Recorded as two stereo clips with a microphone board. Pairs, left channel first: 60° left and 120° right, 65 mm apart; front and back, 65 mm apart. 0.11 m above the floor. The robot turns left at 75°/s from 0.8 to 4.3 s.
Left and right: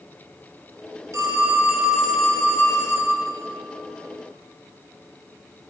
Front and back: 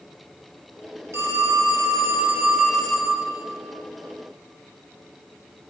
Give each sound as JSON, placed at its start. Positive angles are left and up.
{"t": 1.1, "sound": "a phone ringing", "azimuth_deg": -145, "distance_m": 1.7}